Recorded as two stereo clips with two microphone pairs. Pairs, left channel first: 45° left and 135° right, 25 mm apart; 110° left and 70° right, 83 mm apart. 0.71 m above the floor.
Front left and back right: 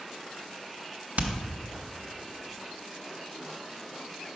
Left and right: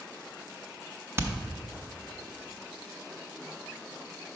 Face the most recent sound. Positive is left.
turn(degrees=-130)